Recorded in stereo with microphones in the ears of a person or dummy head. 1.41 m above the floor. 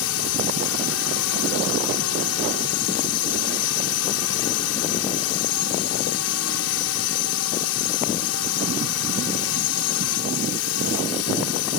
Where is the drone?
75° left (ahead or behind).